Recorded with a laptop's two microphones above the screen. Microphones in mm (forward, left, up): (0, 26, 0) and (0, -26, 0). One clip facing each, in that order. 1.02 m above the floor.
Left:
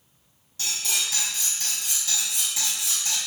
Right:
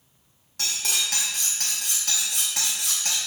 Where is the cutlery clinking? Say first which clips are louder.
Right 1 dB; 60° right (ahead or behind), 0.6 m.